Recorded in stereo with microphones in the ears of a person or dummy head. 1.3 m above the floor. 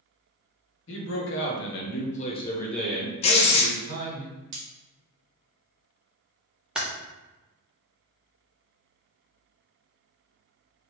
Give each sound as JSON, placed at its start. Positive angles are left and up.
{"t": 0.9, "sound": "a man speaking", "side_deg": 65, "distance_m": 1.0}
{"t": 3.2, "sound": "writing", "side_deg": 30, "distance_m": 0.6}
{"t": 4.5, "sound": "cutlery clinking", "side_deg": -65, "distance_m": 1.0}
{"t": 6.8, "sound": "typing on a keyboard", "side_deg": -5, "distance_m": 0.5}